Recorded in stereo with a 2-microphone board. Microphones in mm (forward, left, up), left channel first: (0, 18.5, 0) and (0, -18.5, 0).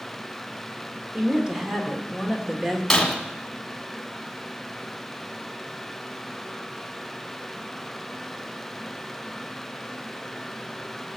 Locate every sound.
1.1 s a woman speaking: 15° right (ahead or behind), 1.9 m
2.9 s breaking glass: 5° left (ahead or behind), 1.9 m